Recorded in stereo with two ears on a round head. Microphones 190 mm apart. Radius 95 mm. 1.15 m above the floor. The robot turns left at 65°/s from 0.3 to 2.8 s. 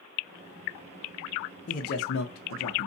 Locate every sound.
1.7 s a man speaking: 145° left, 0.6 m; by 2.9 s 70° left, 0.6 m